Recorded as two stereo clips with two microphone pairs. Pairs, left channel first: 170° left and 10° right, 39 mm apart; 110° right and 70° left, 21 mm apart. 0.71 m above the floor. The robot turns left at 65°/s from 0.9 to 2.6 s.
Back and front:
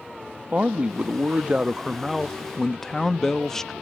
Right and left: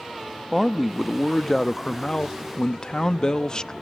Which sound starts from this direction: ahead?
A man speaking, at 0.5 s.